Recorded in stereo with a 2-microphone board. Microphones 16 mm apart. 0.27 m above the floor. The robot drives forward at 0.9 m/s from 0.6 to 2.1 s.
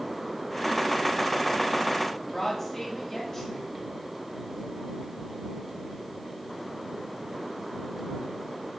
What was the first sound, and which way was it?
A woman speaking, 10° left (ahead or behind).